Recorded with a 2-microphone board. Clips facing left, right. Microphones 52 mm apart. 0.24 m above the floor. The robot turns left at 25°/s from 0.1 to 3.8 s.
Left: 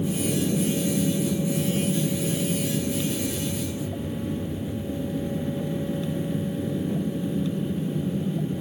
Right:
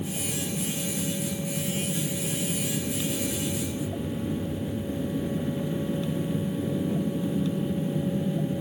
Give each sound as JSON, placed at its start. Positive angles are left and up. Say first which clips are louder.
{"t": 0.0, "sound": "an aircraft", "louder": "left 7 dB", "azimuth_deg": 95}